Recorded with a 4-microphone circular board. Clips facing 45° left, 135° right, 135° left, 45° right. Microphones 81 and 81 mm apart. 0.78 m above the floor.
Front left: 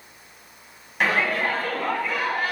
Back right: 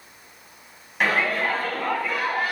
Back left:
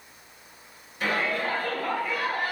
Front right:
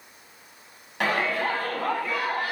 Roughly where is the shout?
Ahead right.